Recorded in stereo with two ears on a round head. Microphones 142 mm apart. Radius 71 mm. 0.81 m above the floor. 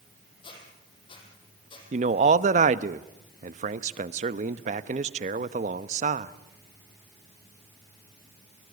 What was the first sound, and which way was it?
A squeak, 35° left (ahead or behind).